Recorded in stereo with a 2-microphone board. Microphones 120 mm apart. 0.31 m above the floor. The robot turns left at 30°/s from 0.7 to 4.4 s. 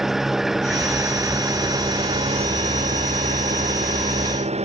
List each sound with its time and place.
0.0 s an engine running: 5° right; by 4.7 s 115° right